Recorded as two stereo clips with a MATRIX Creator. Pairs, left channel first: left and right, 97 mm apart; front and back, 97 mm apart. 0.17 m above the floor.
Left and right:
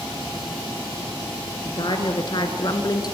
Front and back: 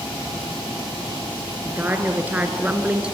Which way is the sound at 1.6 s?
110° left.